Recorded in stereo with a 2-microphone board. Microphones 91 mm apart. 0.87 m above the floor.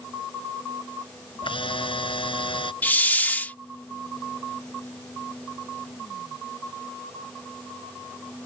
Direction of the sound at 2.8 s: 20° left (ahead or behind).